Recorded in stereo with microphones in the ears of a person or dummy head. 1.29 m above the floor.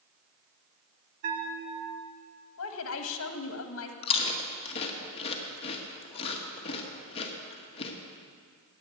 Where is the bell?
55° right (ahead or behind), 1.8 m.